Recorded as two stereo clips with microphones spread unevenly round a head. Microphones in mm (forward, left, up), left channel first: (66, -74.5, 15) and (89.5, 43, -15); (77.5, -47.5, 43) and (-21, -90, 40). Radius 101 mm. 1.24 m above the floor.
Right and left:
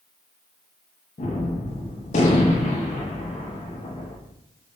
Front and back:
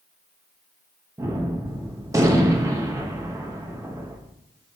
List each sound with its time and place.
1.2 s a gunshot: 110° right, 0.7 m